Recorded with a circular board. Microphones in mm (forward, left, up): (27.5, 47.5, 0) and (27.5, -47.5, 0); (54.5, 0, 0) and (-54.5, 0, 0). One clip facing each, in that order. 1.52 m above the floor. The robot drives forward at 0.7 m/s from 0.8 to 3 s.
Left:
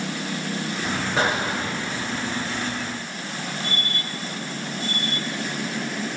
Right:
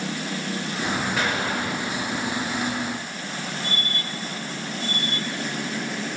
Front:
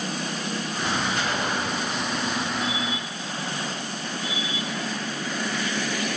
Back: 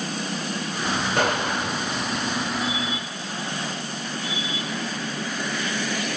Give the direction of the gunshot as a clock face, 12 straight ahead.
7 o'clock.